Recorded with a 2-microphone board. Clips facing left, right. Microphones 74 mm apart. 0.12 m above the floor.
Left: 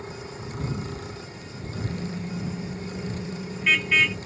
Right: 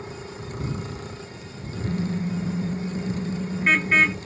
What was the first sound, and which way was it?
A car horn, 40° right (ahead or behind).